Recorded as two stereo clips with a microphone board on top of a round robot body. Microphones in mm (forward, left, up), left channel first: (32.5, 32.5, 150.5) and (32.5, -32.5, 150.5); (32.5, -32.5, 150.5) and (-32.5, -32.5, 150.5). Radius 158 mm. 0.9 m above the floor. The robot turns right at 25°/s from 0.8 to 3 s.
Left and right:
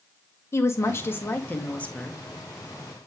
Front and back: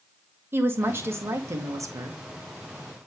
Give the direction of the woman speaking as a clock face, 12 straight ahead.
8 o'clock.